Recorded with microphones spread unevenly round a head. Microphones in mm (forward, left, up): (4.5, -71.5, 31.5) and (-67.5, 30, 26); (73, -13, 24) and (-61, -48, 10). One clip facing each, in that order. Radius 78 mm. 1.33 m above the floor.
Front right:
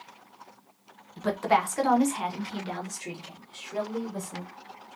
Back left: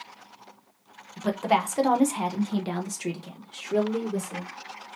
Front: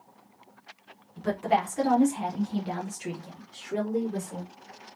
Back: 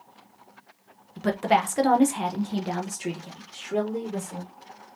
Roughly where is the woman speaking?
Behind right.